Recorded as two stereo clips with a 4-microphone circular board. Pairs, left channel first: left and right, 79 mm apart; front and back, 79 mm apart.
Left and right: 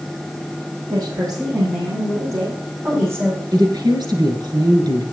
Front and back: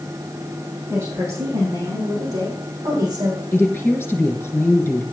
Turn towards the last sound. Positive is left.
turn(degrees=-65)